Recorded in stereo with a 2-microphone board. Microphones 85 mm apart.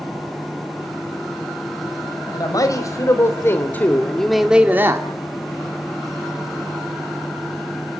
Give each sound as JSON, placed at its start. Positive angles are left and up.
{"t": 2.3, "sound": "a man speaking", "side_deg": 45, "distance_m": 4.0}